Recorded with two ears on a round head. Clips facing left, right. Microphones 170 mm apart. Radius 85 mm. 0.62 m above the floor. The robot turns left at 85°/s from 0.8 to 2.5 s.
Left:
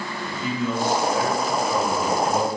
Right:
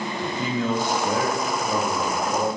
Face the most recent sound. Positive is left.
turn(degrees=150)